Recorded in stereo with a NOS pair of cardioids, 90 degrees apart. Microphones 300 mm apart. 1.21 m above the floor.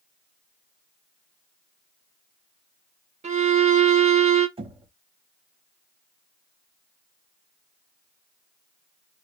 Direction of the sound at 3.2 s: 20° right.